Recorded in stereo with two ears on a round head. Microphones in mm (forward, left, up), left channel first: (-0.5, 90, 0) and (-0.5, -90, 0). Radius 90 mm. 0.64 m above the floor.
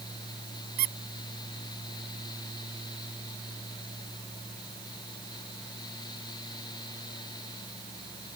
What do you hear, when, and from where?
0.8 s a squeak: 45° right (ahead or behind)